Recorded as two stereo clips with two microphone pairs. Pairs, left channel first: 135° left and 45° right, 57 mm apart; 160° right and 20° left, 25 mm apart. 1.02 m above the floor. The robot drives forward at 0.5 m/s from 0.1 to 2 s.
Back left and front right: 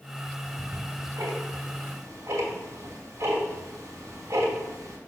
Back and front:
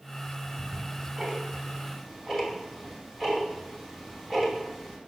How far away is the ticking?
About 2.5 m.